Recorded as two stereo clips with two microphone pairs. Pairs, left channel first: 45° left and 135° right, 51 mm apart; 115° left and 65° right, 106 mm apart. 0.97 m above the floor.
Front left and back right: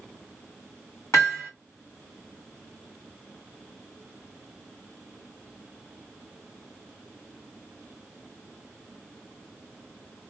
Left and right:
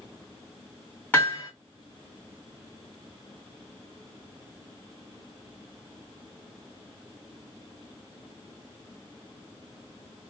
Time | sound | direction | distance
1.1 | hammering | 45° left | 1.9 m